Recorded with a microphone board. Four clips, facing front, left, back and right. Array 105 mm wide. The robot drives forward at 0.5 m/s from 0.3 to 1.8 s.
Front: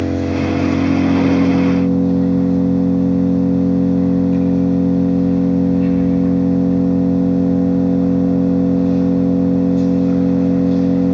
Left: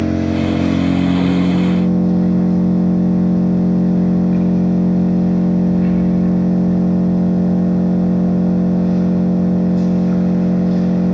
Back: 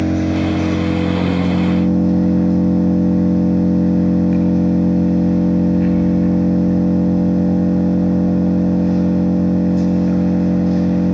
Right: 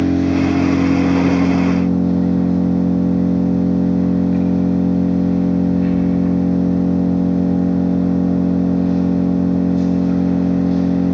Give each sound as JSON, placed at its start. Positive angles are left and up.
{"t": 0.0, "sound": "an engine running", "azimuth_deg": 180, "distance_m": 3.5}